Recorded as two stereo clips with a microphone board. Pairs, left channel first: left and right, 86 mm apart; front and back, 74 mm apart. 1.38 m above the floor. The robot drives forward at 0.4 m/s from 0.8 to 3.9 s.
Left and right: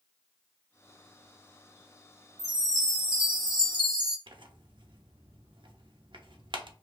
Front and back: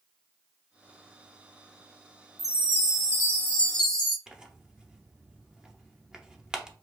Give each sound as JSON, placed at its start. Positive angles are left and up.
{"t": 2.4, "sound": "a chime", "azimuth_deg": -45, "distance_m": 1.1}
{"t": 4.3, "sound": "tearing paper", "azimuth_deg": -100, "distance_m": 0.6}